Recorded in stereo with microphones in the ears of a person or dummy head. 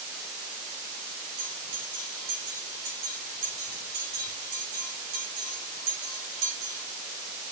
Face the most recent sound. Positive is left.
turn(degrees=-65)  # may be behind; listen again after turning